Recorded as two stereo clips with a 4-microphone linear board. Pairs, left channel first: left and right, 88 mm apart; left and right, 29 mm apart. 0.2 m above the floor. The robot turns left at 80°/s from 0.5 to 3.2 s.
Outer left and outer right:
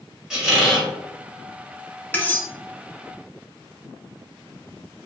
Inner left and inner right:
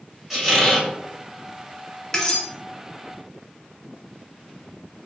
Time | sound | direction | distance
0.3 | a squeak | 5° right (ahead or behind) | 1.0 m
2.1 | cutlery clinking | 20° left (ahead or behind) | 0.6 m